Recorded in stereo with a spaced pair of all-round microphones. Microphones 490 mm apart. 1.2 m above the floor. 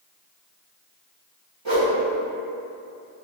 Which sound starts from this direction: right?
A whoosh, at 1.6 s.